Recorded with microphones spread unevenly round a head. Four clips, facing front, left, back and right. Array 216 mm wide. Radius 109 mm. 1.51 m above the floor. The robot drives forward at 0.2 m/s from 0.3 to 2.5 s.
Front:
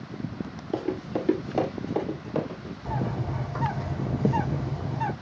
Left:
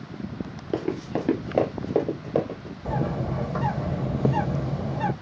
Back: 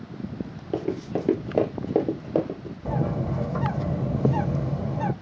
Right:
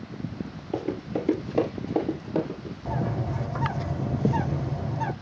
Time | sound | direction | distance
0.7 | running footsteps | 85° left | 1.7 m
2.9 | a bird | 160° left | 2.5 m